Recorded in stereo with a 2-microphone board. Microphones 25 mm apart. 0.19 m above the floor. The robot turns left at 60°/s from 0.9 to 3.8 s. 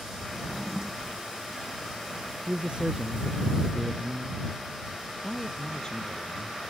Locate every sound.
0.3 s a drawer: 10° right (ahead or behind); by 1.2 s 25° right (ahead or behind)
2.5 s a man speaking: 110° right; by 4.4 s 170° left
5.2 s a man speaking: 30° left (ahead or behind)